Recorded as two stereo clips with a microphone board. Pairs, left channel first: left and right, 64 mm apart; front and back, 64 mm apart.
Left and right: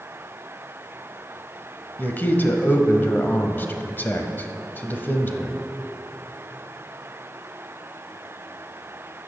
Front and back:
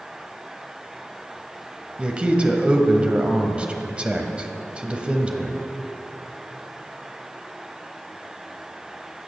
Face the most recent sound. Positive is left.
turn(degrees=120)